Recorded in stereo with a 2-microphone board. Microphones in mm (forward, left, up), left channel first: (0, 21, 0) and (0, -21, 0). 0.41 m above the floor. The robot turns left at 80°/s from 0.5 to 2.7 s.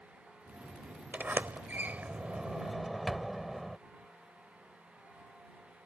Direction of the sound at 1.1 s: 40° right (ahead or behind).